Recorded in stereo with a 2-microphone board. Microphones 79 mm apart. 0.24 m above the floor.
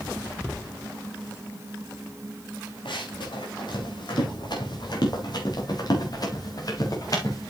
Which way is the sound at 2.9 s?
70° left (ahead or behind).